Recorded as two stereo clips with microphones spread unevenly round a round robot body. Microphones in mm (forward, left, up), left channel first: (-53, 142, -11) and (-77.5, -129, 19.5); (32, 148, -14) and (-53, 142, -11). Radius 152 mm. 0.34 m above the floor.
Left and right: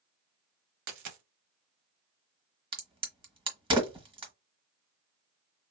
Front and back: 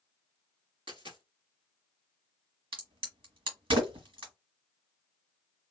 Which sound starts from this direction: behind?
A crack, at 2.7 s.